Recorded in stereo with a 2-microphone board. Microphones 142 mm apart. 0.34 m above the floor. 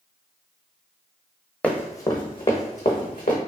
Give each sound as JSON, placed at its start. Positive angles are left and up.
{"t": 1.6, "sound": "running footsteps", "side_deg": 10, "distance_m": 0.7}